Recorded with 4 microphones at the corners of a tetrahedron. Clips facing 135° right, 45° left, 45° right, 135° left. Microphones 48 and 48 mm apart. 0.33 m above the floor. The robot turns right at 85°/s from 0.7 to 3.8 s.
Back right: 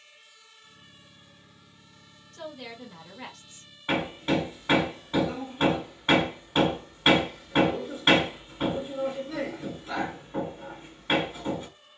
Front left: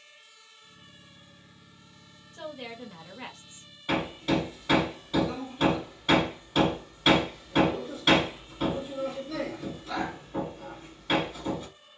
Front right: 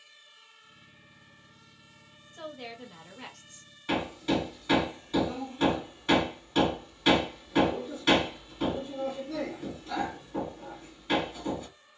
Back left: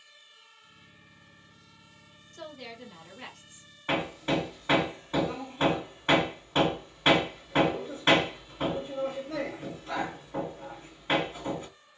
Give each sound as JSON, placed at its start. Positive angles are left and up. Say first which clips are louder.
{"t": 2.3, "sound": "a woman speaking", "louder": "front left 1 dB, front right 1 dB", "azimuth_deg": -15, "distance_m": 1.1}
{"t": 3.9, "sound": "hammering", "louder": "back right 1 dB, even", "azimuth_deg": 175, "distance_m": 1.7}